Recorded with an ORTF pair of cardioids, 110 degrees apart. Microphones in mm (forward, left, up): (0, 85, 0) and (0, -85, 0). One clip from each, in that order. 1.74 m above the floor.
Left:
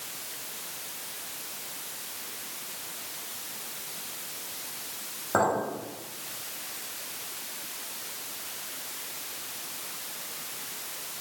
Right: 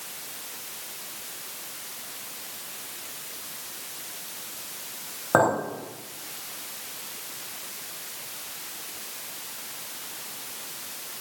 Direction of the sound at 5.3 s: 35° right.